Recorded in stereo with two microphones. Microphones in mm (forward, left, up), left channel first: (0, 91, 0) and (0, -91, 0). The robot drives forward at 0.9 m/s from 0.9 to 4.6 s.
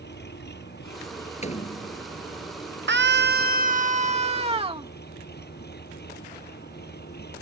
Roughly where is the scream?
Right.